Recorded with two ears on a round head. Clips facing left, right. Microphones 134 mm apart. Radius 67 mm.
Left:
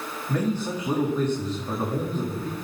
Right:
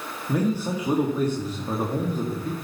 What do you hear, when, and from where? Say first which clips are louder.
0.3 s a man speaking: right 2 dB; 10° right (ahead or behind), 1.6 m